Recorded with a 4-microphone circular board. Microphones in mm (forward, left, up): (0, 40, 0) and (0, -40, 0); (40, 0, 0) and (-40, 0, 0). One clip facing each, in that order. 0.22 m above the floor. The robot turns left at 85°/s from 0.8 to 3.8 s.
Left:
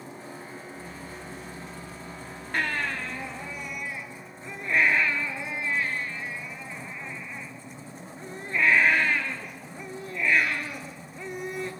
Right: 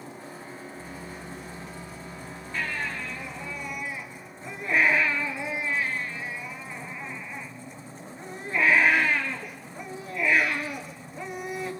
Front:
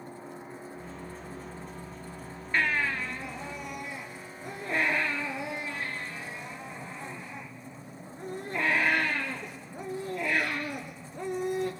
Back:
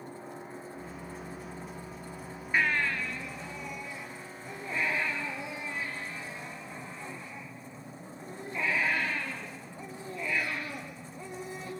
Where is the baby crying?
100° left, 3 m; by 11.7 s 5° right, 3 m.